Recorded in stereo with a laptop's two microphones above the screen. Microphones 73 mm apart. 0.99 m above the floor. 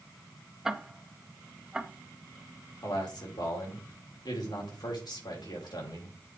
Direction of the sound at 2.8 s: 75° left (ahead or behind).